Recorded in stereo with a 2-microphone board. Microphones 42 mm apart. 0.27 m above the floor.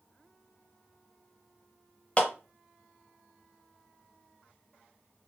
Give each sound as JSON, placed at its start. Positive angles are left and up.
{"t": 2.2, "sound": "a clap", "side_deg": 30, "distance_m": 1.0}